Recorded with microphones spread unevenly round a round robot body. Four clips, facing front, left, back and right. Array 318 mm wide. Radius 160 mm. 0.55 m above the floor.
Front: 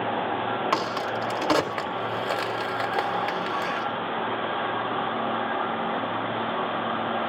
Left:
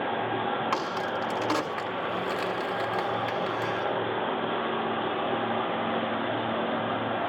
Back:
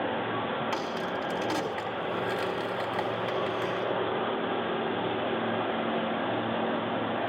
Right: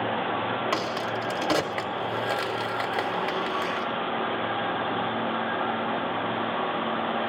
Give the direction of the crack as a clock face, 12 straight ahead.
1 o'clock.